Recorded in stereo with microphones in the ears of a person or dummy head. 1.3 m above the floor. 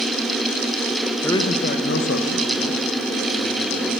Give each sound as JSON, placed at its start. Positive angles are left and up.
{"t": 1.2, "sound": "a man speaking", "side_deg": 10, "distance_m": 1.2}